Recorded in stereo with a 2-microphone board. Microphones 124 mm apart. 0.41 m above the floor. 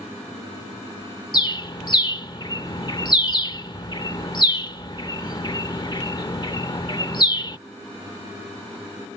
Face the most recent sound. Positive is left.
turn(degrees=35)  # may be behind; listen again after turning